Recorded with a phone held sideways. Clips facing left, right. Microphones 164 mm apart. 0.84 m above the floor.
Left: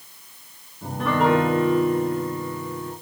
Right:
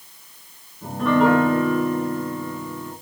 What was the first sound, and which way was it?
A piano, 5° left (ahead or behind).